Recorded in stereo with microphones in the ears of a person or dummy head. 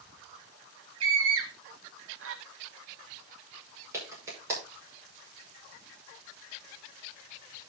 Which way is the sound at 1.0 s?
80° right.